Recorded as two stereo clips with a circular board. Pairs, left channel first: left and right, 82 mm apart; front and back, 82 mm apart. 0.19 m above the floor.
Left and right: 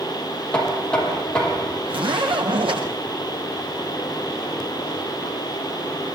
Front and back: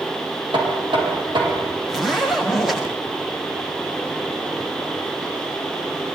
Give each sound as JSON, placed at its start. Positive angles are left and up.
{"t": 0.5, "sound": "knocking", "azimuth_deg": 170, "distance_m": 5.5}
{"t": 1.9, "sound": "a zipper", "azimuth_deg": -95, "distance_m": 8.0}